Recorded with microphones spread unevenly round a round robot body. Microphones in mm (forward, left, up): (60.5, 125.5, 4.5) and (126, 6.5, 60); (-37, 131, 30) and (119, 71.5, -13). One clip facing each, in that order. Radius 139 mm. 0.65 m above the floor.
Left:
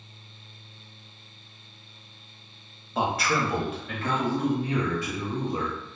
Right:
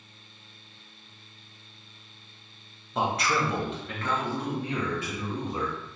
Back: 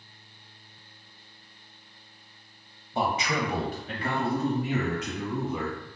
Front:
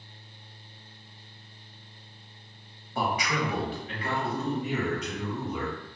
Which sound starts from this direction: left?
A man speaking, at 2.9 s.